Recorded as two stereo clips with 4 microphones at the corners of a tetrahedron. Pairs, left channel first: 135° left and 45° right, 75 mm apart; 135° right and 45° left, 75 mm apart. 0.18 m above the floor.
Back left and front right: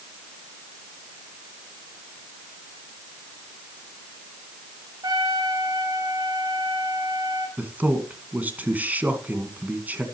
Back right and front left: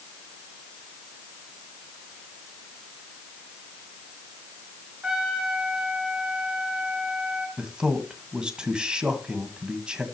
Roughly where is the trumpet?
Ahead right.